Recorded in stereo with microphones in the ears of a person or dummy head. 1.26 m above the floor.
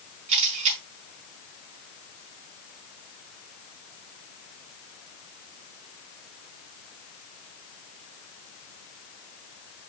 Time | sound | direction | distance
0.3 | a camera shutter | 35° right (ahead or behind) | 4.5 m